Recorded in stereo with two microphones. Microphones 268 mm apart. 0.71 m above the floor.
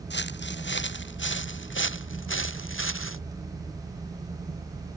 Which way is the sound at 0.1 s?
40° left (ahead or behind).